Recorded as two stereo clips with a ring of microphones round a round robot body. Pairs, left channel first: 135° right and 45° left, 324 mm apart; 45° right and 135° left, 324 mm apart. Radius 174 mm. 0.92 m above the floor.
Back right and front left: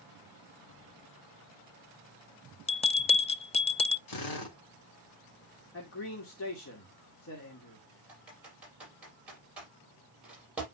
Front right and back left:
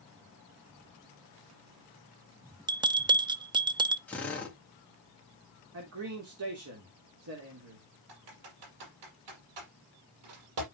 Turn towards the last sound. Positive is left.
turn(degrees=130)